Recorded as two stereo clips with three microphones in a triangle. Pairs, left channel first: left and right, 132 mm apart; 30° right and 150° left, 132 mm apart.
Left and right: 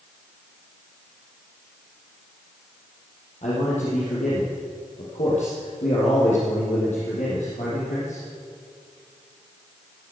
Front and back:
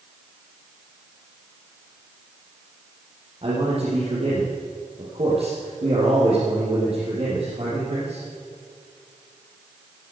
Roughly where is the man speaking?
Left.